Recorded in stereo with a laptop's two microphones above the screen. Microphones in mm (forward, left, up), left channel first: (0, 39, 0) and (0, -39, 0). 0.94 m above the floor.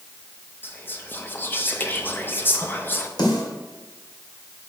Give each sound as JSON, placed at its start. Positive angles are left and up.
{"t": 0.6, "sound": "whispering", "side_deg": 25, "distance_m": 0.5}
{"t": 3.2, "sound": "a snare drum", "side_deg": 65, "distance_m": 2.5}